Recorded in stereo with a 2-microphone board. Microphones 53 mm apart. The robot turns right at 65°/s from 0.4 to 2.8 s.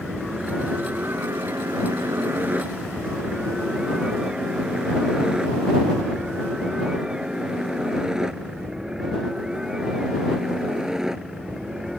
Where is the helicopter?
Centre (ahead or behind); by 12.0 s 10° right (ahead or behind).